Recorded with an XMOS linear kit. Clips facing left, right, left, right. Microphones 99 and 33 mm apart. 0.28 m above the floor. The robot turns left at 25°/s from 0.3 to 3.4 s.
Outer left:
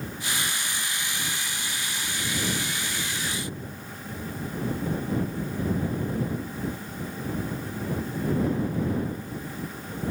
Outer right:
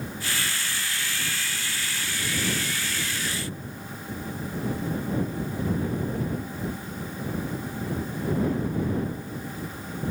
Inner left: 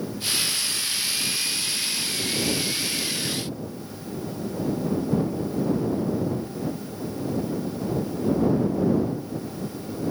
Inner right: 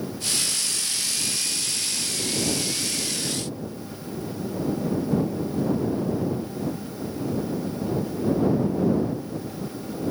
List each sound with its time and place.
Only background noise.